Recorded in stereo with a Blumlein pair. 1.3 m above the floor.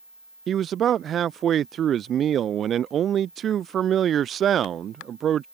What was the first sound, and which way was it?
A man speaking, 25° right.